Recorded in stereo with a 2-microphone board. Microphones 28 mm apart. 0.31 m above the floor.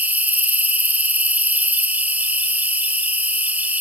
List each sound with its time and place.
0.0 s an insect: 85° right, 1.0 m